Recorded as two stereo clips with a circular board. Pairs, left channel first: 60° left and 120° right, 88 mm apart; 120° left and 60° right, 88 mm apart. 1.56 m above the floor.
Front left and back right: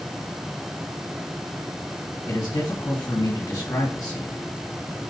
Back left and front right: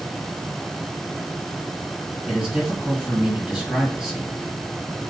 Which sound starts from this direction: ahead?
A man speaking, at 2.3 s.